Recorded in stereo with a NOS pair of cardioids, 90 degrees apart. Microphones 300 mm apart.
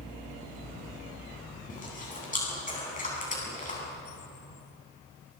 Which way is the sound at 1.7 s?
25° left.